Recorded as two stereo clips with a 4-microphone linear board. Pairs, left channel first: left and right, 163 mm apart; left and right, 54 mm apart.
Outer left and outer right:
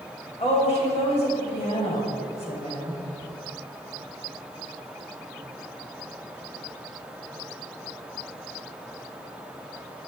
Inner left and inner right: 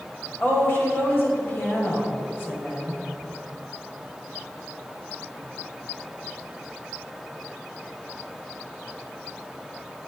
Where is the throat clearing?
No throat clearing in this recording.